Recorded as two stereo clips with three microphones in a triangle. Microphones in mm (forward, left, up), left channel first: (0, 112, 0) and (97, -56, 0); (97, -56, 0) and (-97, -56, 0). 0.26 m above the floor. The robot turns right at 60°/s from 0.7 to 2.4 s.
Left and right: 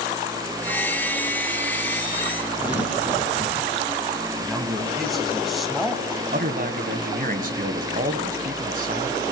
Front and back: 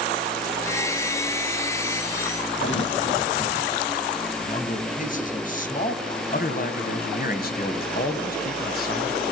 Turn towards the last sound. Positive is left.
turn(degrees=-25)